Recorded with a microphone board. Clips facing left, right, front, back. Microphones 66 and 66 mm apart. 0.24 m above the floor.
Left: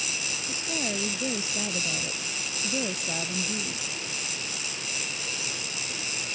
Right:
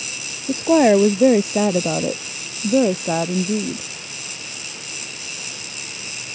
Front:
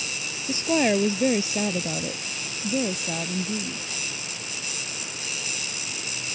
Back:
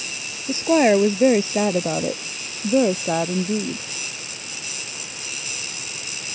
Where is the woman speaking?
115° right; by 3.9 s 135° right.